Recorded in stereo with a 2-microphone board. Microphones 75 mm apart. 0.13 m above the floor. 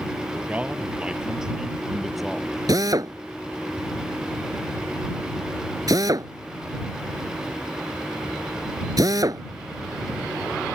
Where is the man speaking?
20° right (ahead or behind); by 2.6 s centre (ahead or behind).